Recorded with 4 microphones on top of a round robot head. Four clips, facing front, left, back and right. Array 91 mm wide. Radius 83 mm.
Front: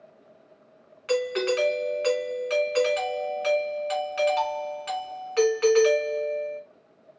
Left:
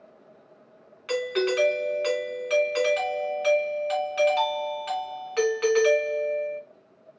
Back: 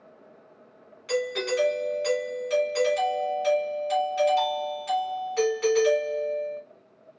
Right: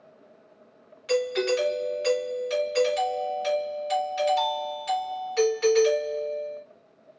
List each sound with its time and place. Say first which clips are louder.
1.1 s a doorbell: right 1 dB, front 2 dB; 50° left, 2 m